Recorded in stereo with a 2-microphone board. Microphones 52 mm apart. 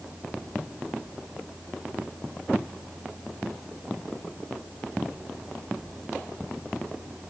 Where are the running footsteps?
No running footsteps in this recording.